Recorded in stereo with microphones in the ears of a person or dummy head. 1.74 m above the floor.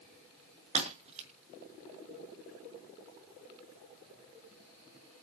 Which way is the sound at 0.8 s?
35° right (ahead or behind).